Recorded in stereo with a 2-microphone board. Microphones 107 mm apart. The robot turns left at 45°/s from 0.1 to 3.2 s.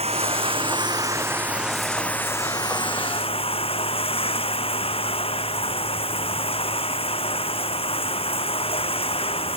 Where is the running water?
105° right; by 9.6 s 115° left.